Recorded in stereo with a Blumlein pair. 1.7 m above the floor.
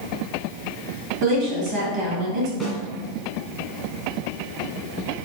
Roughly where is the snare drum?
Ahead.